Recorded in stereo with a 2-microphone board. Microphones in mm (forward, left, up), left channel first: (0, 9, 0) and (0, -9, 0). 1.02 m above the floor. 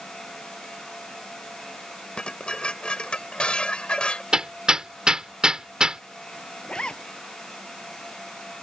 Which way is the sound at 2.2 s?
80° left.